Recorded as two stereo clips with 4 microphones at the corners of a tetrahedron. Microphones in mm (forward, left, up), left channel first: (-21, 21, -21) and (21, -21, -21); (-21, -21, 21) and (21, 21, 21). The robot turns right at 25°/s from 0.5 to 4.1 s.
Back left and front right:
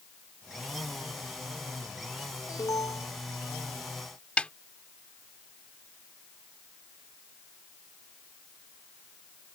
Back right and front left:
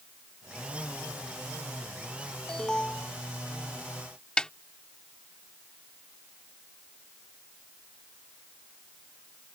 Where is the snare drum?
165° left.